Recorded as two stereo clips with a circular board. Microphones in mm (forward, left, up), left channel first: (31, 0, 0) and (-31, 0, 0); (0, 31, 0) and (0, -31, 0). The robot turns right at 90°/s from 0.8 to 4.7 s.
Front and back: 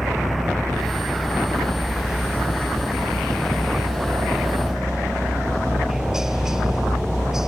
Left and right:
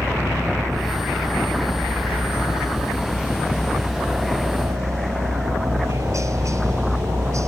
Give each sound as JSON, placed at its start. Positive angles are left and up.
{"t": 0.0, "sound": "a helicopter", "azimuth_deg": -90}